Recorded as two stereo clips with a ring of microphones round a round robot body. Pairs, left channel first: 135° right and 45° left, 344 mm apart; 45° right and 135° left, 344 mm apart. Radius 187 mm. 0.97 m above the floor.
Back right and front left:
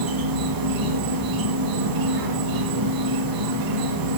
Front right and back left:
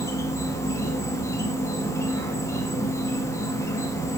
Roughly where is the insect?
Ahead left.